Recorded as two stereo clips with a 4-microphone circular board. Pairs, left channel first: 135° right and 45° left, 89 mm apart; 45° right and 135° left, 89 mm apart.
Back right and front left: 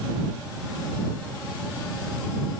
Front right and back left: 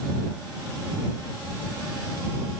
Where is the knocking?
I don't hear knocking.